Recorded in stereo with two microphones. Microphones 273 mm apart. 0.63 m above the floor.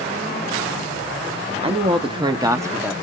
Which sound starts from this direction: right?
A man speaking, at 1.6 s.